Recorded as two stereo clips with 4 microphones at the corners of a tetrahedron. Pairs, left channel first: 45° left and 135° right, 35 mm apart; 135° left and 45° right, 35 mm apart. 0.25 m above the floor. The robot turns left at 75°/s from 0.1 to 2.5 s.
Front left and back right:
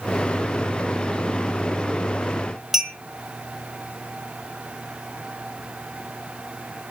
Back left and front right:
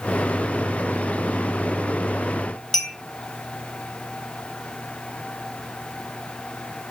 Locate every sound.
2.7 s a clink: 150° left, 0.9 m